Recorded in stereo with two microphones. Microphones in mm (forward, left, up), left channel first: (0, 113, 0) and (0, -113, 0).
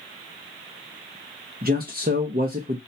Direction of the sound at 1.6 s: 40° right (ahead or behind).